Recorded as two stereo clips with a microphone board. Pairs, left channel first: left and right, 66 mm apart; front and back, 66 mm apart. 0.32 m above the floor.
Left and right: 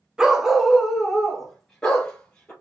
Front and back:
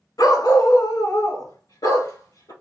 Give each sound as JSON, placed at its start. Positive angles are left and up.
{"t": 0.2, "sound": "a dog barking", "azimuth_deg": -10, "distance_m": 1.0}